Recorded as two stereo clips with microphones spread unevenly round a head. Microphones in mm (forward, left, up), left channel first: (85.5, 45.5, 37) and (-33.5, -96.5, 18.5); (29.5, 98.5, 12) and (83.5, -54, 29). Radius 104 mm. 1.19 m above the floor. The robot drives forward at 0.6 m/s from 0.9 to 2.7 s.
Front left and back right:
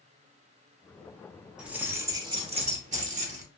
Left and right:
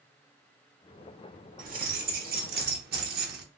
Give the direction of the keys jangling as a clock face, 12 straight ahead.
1 o'clock.